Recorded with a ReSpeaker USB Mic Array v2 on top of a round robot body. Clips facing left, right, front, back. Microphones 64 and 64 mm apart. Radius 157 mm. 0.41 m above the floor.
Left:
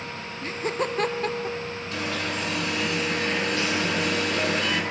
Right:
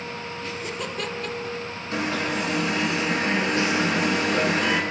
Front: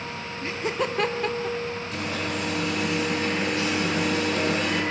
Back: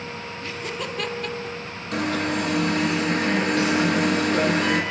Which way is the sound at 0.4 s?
55° left.